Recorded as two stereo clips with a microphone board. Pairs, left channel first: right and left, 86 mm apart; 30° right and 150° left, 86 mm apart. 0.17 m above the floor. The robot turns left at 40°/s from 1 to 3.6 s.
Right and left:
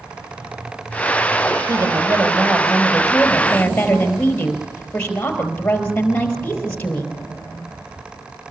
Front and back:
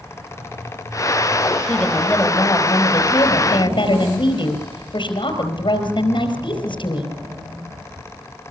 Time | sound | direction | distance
1.7 | a woman speaking | 60° left | 4.5 m